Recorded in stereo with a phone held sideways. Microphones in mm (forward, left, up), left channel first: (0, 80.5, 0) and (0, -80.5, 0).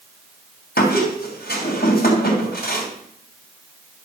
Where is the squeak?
75° left (ahead or behind), 2.5 m.